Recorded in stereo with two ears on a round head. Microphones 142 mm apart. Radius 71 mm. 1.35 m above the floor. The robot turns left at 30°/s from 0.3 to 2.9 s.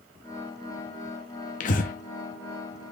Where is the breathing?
50° left (ahead or behind), 1.0 m.